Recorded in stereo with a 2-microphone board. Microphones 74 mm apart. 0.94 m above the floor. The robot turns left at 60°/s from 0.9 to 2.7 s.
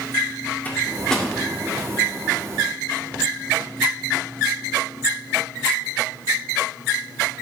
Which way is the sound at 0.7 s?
25° left (ahead or behind).